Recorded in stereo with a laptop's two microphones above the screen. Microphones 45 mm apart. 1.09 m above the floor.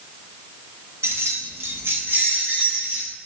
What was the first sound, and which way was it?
Keys jangling, 75° right (ahead or behind).